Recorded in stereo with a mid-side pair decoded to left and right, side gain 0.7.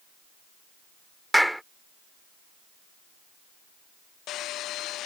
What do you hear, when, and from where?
1.3 s a clap: straight ahead